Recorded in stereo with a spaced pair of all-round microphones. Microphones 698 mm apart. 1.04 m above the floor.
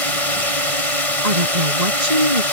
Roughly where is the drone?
Left.